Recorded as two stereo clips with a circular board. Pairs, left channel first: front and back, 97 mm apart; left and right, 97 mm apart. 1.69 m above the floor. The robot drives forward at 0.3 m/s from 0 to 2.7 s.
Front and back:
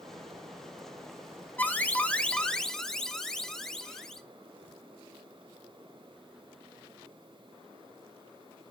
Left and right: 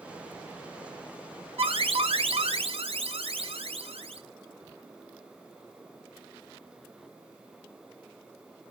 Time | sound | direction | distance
1.6 | an alarm | 70° right | 1.5 m